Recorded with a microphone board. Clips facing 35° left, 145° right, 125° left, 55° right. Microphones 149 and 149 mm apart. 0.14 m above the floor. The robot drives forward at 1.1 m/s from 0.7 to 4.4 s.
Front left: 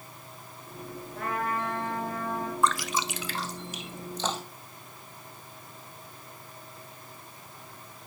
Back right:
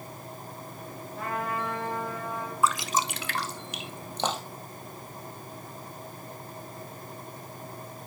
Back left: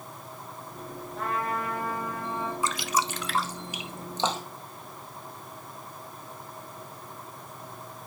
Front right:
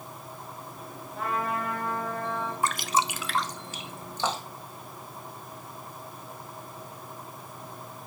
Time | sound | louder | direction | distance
1.1 | a trumpet | front left 1 dB, front right 1 dB | 30° left | 3 m
2.6 | dripping | back right 2 dB, front right 3 dB | 60° right | 0.5 m